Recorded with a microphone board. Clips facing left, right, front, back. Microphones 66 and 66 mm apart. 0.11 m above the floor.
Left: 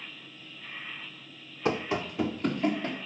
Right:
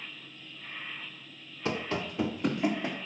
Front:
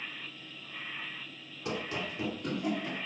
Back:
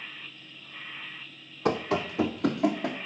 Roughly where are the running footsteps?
Behind left.